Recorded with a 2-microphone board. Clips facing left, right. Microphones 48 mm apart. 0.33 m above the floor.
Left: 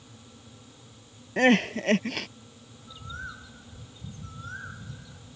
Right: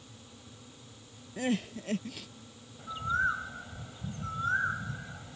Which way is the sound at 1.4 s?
65° left (ahead or behind).